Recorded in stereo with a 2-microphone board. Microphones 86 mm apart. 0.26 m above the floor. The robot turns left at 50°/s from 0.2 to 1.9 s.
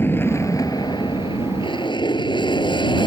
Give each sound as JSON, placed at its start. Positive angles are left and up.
{"t": 0.0, "sound": "an aircraft", "side_deg": 25}